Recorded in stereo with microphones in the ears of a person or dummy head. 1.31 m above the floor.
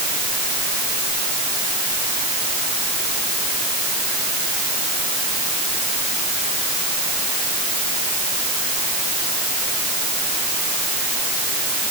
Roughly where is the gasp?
I don't hear a gasp.